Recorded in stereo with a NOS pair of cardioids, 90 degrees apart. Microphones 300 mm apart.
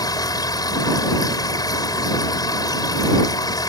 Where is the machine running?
15° left.